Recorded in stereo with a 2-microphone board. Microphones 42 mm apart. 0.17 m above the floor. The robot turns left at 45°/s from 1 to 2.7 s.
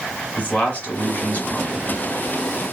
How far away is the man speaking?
About 1.9 m.